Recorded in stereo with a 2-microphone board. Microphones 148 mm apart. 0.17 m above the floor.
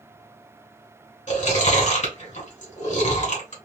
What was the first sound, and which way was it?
Chewing, 55° left (ahead or behind).